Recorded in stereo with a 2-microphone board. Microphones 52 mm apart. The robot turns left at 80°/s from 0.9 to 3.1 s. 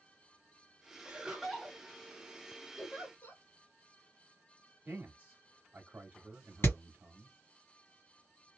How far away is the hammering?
About 2 m.